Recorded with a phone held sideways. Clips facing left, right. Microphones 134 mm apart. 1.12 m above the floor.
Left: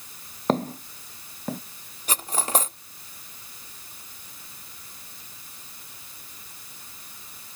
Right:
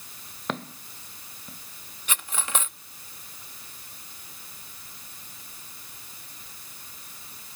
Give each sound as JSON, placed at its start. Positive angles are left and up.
{"t": 0.5, "sound": "footsteps", "side_deg": 35}
{"t": 2.1, "sound": "cutlery clinking", "side_deg": 35}